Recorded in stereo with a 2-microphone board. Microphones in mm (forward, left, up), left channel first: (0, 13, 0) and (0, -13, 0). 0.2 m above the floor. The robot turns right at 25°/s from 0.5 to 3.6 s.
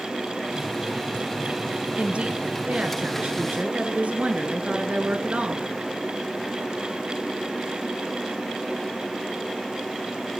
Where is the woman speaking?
120° right, 2.5 m; by 5.7 s 80° right, 2.5 m.